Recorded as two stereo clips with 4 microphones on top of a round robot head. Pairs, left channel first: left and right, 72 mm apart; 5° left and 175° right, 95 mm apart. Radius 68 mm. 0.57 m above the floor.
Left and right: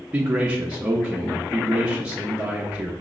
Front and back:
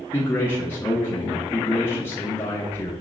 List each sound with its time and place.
0.1 s a man speaking: 30° right, 0.6 m